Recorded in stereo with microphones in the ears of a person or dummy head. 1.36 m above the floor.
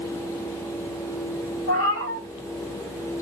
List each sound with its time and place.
1.7 s a cat meowing: 65° left (ahead or behind), 1.9 m